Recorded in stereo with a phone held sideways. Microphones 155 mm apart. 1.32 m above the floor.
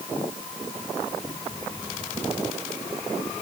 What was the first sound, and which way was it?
Only background noise.